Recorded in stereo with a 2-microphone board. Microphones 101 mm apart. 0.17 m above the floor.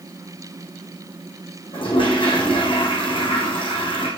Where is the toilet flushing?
60° left (ahead or behind), 3.5 m.